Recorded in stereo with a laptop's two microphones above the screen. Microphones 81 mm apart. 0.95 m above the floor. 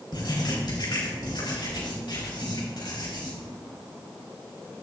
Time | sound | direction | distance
0.1 | writing | 65° left (ahead or behind) | 4 m